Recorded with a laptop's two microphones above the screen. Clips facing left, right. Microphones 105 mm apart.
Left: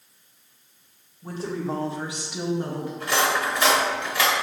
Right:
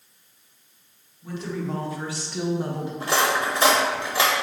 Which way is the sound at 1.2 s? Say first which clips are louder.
Left 1 dB; 40° left (ahead or behind).